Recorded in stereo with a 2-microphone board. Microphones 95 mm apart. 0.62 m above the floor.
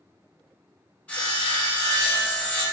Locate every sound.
1.1 s sawing: 15° left (ahead or behind), 1.0 m